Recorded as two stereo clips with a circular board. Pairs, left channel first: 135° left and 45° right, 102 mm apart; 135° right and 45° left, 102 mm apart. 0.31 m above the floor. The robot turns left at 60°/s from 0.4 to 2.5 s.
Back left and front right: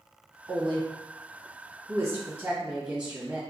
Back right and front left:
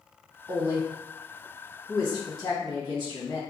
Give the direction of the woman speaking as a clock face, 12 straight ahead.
12 o'clock.